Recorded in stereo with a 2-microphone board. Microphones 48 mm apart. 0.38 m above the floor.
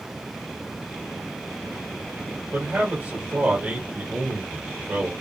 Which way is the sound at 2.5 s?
40° right (ahead or behind).